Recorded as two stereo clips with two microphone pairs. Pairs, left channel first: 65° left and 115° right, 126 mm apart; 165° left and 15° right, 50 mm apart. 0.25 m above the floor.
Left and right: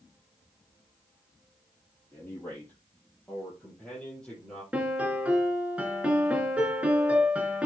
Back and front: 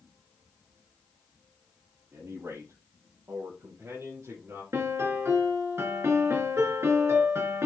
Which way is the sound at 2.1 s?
10° right.